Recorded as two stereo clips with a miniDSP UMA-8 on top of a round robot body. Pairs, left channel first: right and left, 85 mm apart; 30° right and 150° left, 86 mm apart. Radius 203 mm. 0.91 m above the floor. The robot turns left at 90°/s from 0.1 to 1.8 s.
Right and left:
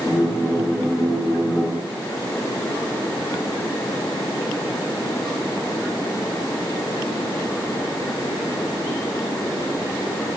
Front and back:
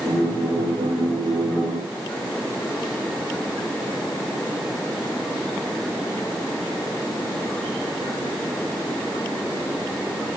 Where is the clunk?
I don't hear a clunk.